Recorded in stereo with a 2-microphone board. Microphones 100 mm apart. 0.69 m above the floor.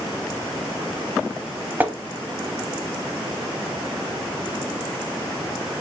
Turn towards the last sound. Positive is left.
turn(degrees=-20)  # may be behind; listen again after turning